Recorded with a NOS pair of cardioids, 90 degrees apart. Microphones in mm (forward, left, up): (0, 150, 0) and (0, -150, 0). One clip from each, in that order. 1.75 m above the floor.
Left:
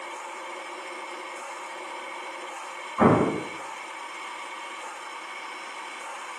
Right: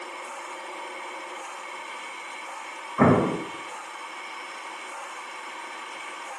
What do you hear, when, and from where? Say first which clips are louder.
3.0 s an explosion: even; 20° right, 0.6 m